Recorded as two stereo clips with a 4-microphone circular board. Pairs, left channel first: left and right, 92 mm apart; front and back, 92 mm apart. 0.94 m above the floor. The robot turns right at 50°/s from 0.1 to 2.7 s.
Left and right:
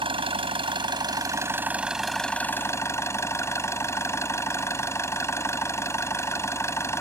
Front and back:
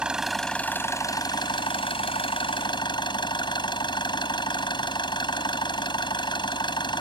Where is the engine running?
100° right; by 7.0 s 30° left.